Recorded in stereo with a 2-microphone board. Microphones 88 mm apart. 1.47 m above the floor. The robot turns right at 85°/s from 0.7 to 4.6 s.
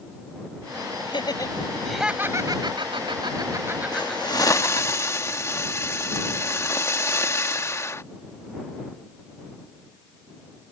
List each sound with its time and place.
1.1 s laughter: 75° left (ahead or behind); by 4.9 s 45° left (ahead or behind)
3.9 s a hiss: 85° left; by 8.0 s 140° left